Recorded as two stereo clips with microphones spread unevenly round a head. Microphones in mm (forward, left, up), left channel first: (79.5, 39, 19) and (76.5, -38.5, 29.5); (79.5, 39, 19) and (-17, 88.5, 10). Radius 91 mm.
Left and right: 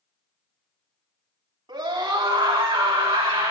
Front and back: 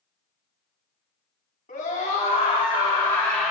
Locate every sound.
1.7 s a scream: 75° right, 3 m; by 3.5 s 115° right, 2.5 m